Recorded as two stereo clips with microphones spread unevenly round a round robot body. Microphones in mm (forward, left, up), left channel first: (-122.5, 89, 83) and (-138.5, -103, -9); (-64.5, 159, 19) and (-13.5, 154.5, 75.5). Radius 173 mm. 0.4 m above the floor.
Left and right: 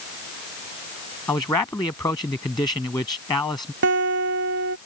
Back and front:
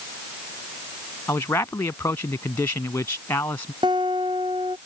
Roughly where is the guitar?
Ahead right.